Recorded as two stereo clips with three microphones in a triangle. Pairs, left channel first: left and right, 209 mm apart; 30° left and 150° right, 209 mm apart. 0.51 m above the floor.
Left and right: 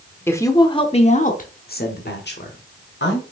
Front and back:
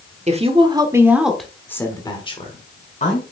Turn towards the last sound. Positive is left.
turn(degrees=75)